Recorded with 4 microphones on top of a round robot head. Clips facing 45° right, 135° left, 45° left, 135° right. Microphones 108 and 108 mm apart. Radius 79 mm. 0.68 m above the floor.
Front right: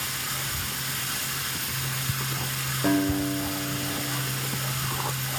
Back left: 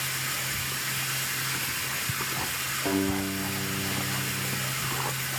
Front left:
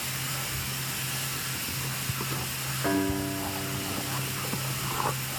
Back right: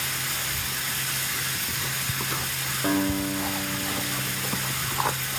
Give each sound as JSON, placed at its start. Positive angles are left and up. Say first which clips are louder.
{"t": 0.0, "sound": "running water", "louder": "even, back right 3 dB", "azimuth_deg": -110, "distance_m": 8.0}
{"t": 2.8, "sound": "a guitar", "louder": "front right 4 dB, back right 2 dB", "azimuth_deg": -65, "distance_m": 9.5}